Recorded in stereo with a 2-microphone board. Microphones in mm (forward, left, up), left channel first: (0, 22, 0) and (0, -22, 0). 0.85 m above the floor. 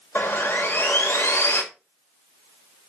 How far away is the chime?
No chime in this recording.